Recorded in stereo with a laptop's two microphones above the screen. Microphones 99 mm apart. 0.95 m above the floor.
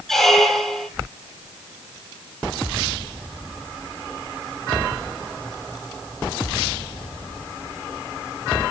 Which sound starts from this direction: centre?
A squeak, at 0.1 s.